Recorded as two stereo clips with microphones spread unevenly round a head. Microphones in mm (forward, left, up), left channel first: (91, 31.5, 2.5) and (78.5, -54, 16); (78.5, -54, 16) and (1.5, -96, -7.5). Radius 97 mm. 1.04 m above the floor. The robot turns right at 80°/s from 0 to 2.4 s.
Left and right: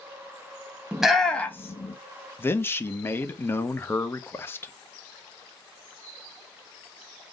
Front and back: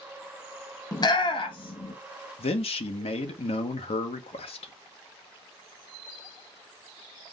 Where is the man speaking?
20° left, 0.7 m.